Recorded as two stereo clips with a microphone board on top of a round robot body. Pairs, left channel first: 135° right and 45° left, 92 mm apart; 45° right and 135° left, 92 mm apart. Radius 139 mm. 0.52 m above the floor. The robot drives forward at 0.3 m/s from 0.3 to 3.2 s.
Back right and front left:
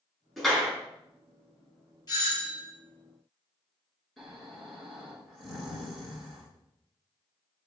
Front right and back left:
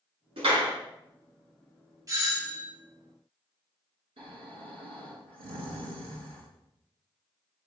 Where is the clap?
135° left, 6.5 m.